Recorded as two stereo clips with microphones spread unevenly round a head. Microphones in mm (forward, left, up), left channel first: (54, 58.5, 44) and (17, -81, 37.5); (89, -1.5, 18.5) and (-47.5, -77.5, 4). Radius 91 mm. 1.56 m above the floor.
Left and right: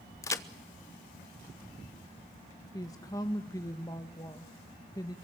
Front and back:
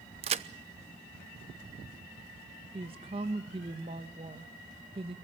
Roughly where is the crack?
Behind left.